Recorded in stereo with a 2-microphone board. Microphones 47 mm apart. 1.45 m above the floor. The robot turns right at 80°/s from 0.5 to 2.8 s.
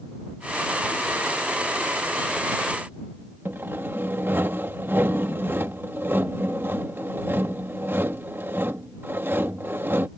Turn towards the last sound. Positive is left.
turn(degrees=-50)  # may be behind; listen again after turning